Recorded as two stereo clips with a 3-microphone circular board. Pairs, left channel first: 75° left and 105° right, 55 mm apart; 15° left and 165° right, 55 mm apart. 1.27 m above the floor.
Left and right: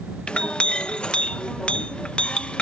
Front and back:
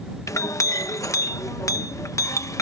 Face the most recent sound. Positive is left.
turn(degrees=5)